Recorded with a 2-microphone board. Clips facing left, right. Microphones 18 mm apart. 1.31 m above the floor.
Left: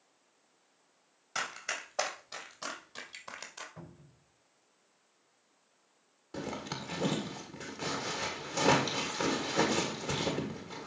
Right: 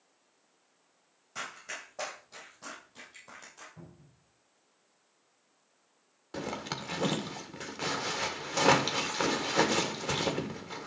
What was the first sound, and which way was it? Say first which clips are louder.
Running footsteps: left 4 dB; 60° left (ahead or behind).